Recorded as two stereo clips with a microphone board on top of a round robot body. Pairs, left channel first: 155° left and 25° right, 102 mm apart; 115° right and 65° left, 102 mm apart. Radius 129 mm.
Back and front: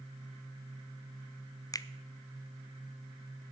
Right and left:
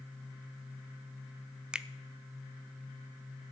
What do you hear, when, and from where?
1.7 s a finger snap: 145° left, 0.6 m